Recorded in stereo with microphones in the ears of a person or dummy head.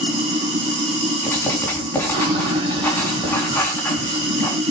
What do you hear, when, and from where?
0.0 s running water: 35° right (ahead or behind), 4 m
1.2 s writing: 10° left (ahead or behind), 4 m